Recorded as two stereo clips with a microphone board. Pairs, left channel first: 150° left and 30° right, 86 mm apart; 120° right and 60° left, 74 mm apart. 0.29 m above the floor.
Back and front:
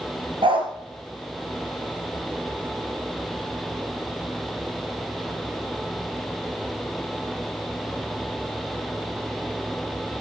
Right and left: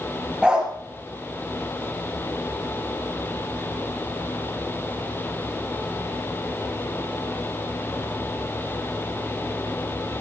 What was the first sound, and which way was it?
A dog barking, 20° right.